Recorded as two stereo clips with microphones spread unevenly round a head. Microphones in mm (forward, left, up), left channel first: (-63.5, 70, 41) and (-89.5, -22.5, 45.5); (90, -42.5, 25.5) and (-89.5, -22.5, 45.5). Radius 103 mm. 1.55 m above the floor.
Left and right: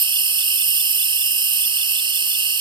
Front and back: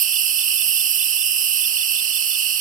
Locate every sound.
0.0 s an insect: 140° right